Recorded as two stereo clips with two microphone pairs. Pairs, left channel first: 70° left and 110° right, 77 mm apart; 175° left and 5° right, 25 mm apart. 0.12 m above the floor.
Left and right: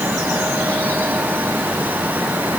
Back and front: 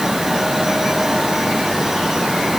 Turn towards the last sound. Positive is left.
No sound to turn to.